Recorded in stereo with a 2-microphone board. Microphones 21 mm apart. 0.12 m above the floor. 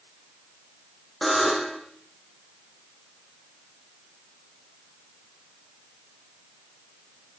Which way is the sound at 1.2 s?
Centre (ahead or behind).